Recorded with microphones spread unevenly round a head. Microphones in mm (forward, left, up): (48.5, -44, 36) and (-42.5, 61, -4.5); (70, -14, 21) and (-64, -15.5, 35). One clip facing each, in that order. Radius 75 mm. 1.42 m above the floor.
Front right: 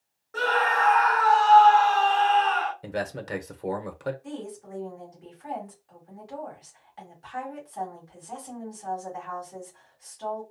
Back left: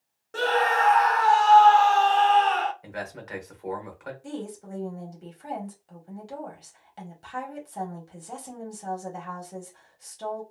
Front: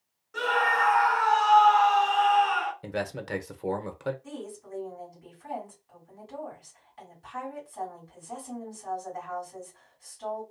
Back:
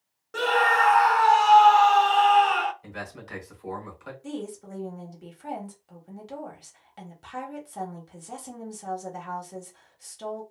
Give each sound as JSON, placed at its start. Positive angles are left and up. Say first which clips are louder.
{"t": 0.3, "sound": "a scream", "louder": "back left 2 dB, back 4 dB", "azimuth_deg": 165, "distance_m": 0.6}
{"t": 2.8, "sound": "a man speaking", "louder": "front right 5 dB, front 7 dB", "azimuth_deg": 5, "distance_m": 0.8}
{"t": 4.2, "sound": "a woman speaking", "louder": "back left 1 dB, back 5 dB", "azimuth_deg": -170, "distance_m": 1.2}